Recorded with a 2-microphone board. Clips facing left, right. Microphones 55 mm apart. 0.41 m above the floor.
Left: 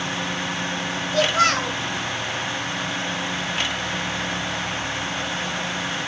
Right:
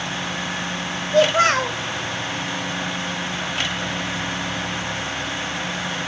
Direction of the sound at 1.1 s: 30° right (ahead or behind).